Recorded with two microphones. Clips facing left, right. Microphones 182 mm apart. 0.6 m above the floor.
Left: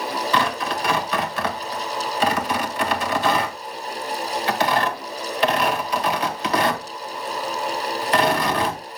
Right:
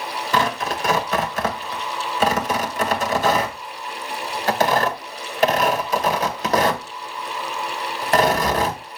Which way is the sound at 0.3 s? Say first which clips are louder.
Right 3 dB; 45° right (ahead or behind).